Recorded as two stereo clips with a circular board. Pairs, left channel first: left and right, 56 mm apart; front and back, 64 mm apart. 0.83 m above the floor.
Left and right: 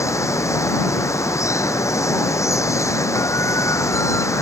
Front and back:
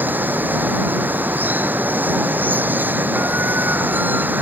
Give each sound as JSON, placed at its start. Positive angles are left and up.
{"t": 0.0, "sound": "running water", "azimuth_deg": 120}